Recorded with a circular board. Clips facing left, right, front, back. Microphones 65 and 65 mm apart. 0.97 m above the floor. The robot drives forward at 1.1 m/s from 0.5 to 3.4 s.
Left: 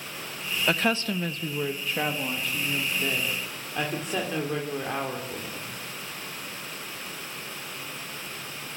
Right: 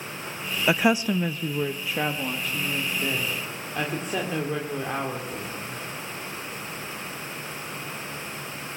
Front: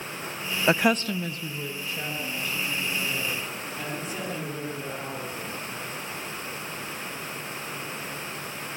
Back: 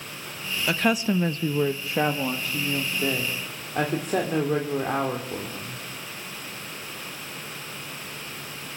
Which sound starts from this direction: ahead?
A woman speaking, at 0.7 s.